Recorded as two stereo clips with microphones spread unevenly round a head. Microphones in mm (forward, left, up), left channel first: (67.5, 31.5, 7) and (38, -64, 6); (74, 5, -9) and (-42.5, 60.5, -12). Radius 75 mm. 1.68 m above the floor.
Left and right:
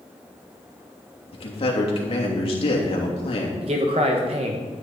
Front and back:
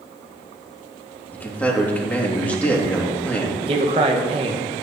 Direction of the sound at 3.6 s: 155° right.